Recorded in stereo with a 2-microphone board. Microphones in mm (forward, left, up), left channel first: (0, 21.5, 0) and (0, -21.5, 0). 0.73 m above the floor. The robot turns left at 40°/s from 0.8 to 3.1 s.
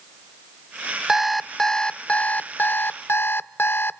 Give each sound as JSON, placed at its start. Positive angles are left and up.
{"t": 1.1, "sound": "an alarm clock", "azimuth_deg": -170, "distance_m": 0.6}